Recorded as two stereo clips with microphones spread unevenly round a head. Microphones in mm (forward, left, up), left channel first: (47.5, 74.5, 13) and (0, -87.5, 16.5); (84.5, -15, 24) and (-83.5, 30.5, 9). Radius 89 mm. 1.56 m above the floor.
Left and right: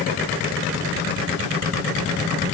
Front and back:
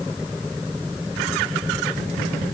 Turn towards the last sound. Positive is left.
No sound to turn to.